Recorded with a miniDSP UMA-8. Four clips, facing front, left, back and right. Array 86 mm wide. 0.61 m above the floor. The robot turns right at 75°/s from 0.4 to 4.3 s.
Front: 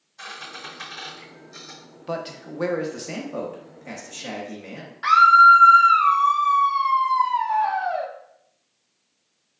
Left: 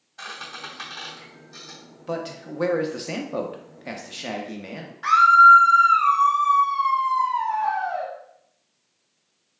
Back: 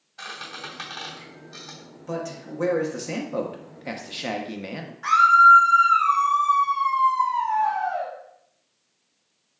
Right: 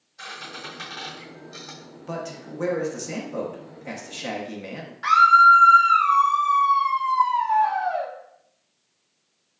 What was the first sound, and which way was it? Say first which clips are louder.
A squeak: left 1 dB, back 1 dB; 140° left.